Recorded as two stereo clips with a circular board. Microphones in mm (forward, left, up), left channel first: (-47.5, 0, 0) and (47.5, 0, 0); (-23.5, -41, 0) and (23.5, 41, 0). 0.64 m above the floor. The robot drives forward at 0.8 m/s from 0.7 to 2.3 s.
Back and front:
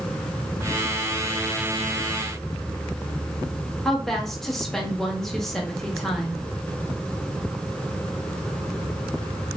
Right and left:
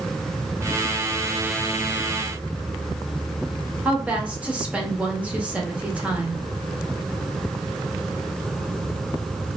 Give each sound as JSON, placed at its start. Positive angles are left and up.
{"t": 3.9, "sound": "a woman speaking", "azimuth_deg": 105, "distance_m": 0.7}